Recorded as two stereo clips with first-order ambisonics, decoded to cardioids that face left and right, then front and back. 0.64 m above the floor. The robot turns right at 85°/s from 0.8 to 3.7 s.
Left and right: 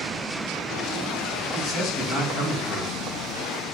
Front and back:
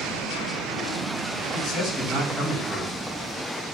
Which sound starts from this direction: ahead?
A man speaking, at 1.5 s.